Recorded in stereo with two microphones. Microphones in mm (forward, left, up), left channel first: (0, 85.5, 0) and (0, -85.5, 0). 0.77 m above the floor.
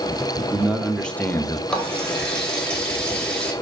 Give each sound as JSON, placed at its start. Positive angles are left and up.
{"t": 0.4, "sound": "a man speaking", "side_deg": -15, "distance_m": 1.1}
{"t": 1.7, "sound": "a running tap", "side_deg": 5, "distance_m": 2.5}